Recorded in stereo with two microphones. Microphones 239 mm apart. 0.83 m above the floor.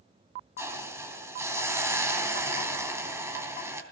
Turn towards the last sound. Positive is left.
turn(degrees=-10)  # may be behind; listen again after turning